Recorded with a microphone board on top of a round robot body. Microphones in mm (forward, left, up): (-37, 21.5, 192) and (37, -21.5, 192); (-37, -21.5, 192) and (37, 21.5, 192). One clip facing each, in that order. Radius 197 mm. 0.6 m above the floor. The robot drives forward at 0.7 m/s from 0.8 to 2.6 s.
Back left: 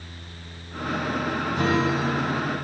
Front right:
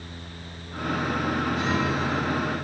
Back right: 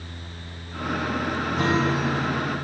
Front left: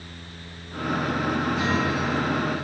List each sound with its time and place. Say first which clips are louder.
1.6 s a guitar: back left 3 dB, back right 2 dB; 170° left, 5.5 m